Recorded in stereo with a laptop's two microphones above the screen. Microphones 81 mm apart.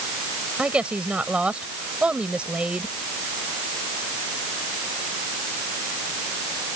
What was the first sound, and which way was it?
A woman speaking, 15° right (ahead or behind).